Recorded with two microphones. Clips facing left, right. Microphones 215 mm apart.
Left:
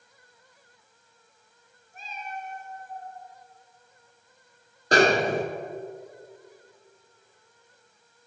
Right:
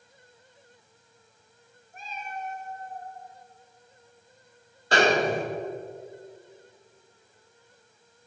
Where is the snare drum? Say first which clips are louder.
Left 2 dB; 45° left (ahead or behind), 0.9 m.